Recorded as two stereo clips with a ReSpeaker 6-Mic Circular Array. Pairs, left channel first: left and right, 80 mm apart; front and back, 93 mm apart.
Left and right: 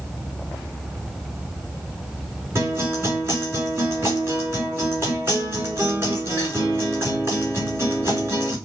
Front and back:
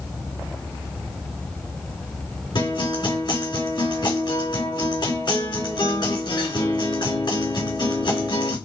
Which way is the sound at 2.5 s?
35° right.